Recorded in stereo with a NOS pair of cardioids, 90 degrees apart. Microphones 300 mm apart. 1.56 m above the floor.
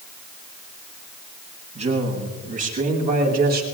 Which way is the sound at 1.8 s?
20° right.